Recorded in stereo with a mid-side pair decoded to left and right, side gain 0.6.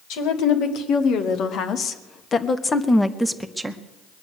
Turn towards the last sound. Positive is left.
turn(degrees=-10)